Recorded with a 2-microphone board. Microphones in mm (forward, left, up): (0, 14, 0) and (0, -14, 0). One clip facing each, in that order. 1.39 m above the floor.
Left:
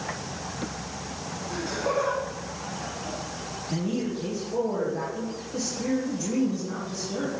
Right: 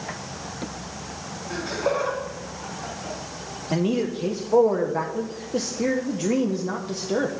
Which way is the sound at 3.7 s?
60° right (ahead or behind).